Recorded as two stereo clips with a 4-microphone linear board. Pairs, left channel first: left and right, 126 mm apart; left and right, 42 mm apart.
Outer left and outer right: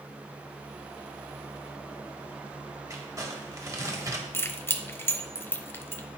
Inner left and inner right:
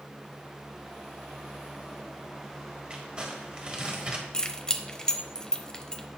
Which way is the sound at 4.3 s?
20° left (ahead or behind).